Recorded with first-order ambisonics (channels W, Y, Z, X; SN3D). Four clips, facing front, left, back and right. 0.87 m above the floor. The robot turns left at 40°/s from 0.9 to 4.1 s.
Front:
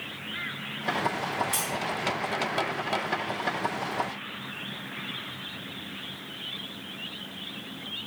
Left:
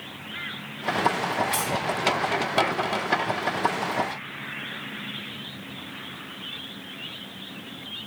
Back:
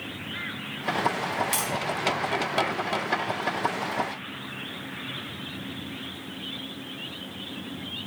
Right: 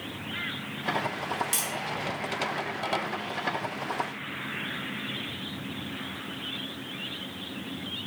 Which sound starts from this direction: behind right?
Tapping, at 1.5 s.